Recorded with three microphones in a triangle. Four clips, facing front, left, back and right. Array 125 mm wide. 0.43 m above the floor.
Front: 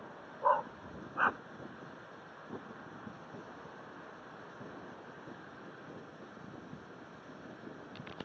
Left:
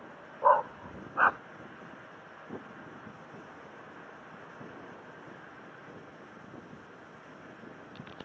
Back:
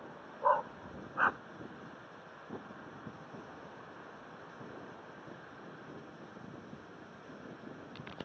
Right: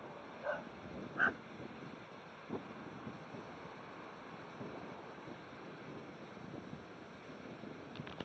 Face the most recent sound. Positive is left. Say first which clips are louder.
# left 18 dB, even
turn(degrees=95)